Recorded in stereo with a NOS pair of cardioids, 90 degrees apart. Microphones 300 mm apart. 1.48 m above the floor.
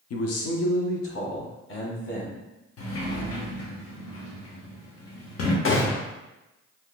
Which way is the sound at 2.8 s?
50° left.